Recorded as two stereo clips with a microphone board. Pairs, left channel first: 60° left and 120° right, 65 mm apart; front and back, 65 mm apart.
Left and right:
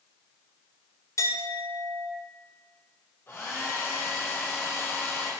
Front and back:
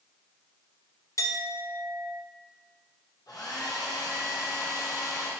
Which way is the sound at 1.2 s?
30° left.